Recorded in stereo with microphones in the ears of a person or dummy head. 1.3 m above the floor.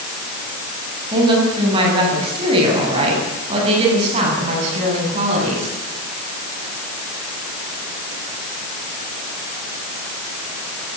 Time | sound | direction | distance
1.1 | a woman speaking | 25° right (ahead or behind) | 8.5 m